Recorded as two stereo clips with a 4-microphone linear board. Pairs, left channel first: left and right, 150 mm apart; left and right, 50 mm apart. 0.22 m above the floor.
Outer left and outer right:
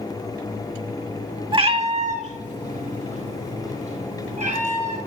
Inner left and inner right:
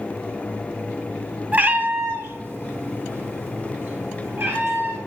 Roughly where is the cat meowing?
Right.